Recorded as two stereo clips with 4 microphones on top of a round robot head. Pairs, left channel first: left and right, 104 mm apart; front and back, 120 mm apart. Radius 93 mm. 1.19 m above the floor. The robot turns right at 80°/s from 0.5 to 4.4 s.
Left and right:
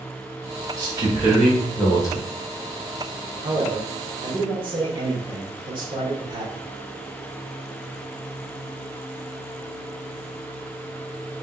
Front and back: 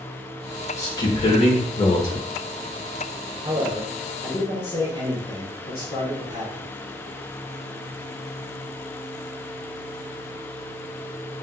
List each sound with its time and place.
0.8 s a man speaking: 55° right, 0.8 m; by 2.2 s 60° left, 0.8 m
3.4 s a man speaking: 125° right, 0.9 m; by 6.7 s 45° right, 0.9 m